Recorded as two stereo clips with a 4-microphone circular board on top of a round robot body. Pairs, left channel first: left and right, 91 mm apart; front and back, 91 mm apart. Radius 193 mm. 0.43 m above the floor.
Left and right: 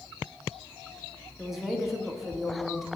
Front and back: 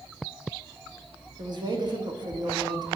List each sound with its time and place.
1.4 s a woman speaking: straight behind, 1.8 m